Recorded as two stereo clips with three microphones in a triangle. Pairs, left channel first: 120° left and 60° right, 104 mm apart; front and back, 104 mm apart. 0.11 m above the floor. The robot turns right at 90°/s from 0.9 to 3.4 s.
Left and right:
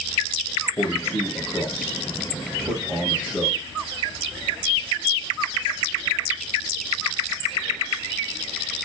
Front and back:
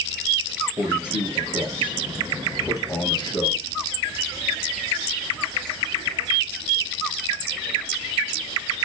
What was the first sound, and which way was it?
A man speaking, 160° left.